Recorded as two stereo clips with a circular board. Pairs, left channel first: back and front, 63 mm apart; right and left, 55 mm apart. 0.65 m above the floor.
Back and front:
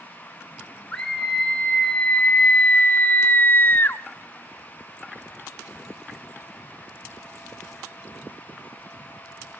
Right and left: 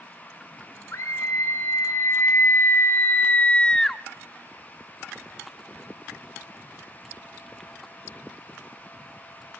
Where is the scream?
105° right, 1.8 m; by 4.0 s 175° right, 0.8 m.